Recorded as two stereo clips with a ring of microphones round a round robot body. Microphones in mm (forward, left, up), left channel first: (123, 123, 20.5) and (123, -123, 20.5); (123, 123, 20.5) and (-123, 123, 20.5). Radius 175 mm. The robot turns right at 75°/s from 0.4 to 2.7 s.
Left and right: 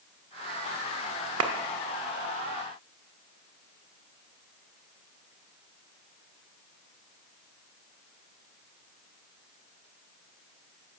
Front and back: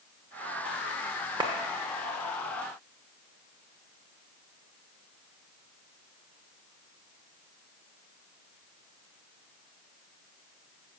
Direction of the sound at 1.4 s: 105° right.